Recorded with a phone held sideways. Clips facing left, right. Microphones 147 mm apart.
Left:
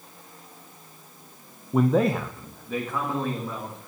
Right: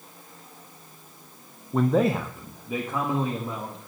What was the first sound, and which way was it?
A man speaking, 10° left (ahead or behind).